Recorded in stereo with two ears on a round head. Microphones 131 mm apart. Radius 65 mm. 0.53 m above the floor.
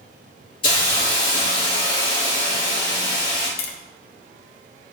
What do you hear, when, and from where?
0.6 s a hiss: 35° left (ahead or behind), 3.5 m
3.6 s tapping: 75° left (ahead or behind), 0.9 m